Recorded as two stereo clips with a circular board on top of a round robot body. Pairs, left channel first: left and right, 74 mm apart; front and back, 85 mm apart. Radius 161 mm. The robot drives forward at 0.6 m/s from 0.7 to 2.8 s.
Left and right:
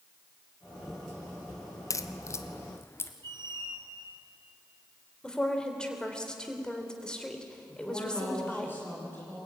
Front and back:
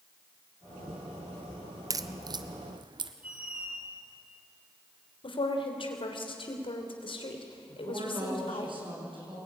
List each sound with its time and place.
1.9 s a crack: 135° left, 1.1 m; by 3.1 s 150° left, 1.5 m
3.2 s a squeak: 105° right, 4.5 m
5.2 s a woman speaking: 10° left, 3.5 m
7.7 s a woman speaking: 155° left, 9 m